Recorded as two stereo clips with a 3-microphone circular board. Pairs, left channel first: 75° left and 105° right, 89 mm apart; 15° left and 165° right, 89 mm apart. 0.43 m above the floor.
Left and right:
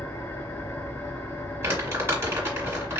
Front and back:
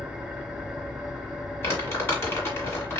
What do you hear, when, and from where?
0.0 s an engine running: 120° left, 1.1 m
1.6 s crumpling: 45° right, 2 m